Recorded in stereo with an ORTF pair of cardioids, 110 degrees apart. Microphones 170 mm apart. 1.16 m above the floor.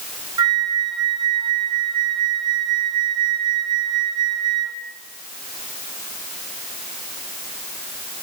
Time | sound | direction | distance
0.4 | a flute | 30° right | 5.5 m